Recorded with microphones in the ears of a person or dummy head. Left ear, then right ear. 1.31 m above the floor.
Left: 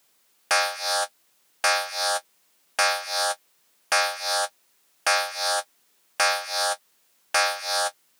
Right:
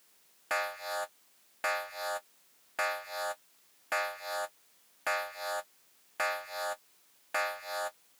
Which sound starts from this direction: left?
An alarm, at 0.5 s.